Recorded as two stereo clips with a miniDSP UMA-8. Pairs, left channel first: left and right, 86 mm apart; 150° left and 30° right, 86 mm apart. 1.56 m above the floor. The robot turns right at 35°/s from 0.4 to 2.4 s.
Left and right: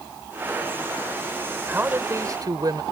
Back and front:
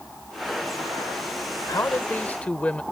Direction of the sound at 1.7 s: 160° right.